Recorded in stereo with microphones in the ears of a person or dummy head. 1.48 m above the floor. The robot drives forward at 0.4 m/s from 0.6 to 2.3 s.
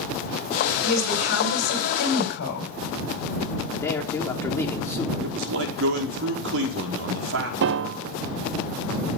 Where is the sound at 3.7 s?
10° left (ahead or behind), 4 m.